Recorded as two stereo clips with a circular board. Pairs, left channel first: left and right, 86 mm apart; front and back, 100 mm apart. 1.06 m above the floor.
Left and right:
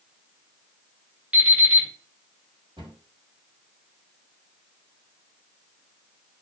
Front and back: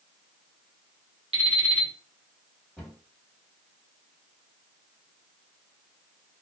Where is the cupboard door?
90° right, 1.4 m.